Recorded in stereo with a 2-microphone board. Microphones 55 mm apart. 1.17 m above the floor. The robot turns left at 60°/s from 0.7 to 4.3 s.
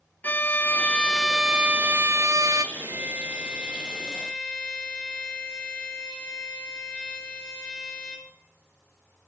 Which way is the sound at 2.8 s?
100° right.